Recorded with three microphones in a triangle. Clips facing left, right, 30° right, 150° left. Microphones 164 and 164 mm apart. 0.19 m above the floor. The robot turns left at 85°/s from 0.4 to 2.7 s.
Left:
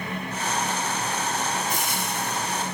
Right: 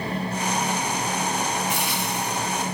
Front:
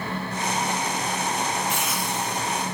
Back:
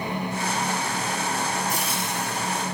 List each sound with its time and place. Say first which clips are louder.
1.7 s frying: right 2 dB, front 1 dB; 120° left, 2 m; by 2.6 s 40° left, 2 m